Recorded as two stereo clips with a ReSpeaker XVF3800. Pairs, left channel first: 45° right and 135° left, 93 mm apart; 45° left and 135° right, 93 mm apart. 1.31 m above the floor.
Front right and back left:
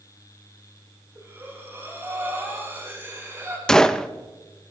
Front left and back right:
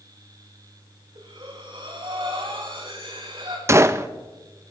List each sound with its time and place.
1.1 s breathing: 160° right, 5.5 m
3.7 s a gunshot: 120° right, 0.5 m